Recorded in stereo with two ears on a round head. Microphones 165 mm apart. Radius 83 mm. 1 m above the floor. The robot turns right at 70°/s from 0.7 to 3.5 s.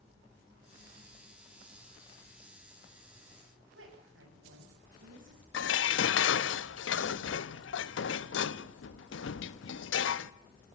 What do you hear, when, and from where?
3.7 s a woman speaking: 80° right, 7.5 m
5.5 s dishes clattering: 80° left, 0.8 m